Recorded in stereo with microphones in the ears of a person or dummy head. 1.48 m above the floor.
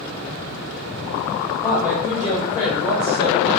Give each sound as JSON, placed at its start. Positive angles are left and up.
{"t": 1.6, "sound": "a woman speaking", "side_deg": -5, "distance_m": 0.8}